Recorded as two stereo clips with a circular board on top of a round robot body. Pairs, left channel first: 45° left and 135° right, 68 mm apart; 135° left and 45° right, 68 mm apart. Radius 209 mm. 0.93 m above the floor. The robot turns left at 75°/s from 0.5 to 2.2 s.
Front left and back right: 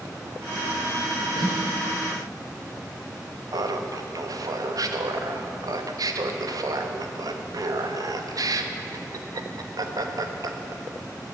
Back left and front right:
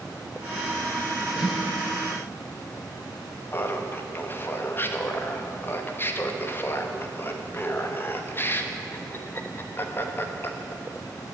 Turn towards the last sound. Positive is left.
turn(degrees=-165)